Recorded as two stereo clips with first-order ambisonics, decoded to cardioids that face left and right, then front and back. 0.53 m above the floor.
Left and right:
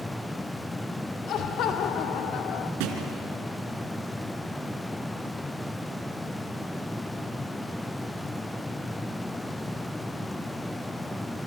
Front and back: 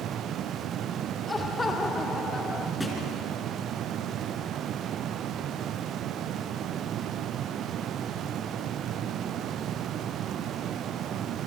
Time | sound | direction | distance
1.3 | laughter | 75° left | 0.8 m
2.8 | a thud | 85° right | 3.5 m